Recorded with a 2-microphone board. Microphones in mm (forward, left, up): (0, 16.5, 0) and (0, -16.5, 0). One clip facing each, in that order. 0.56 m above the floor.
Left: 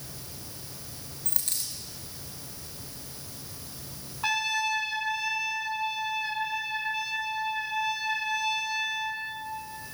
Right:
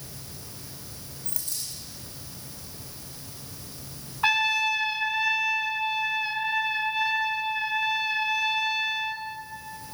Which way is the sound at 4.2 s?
30° right (ahead or behind).